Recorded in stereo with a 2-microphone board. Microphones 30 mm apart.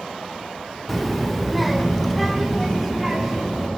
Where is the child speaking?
Centre (ahead or behind), 1.1 m.